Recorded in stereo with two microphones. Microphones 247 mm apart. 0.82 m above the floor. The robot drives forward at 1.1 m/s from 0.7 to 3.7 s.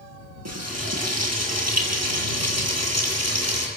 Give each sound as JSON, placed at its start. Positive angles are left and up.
{"t": 0.5, "sound": "frying", "side_deg": -90, "distance_m": 7.5}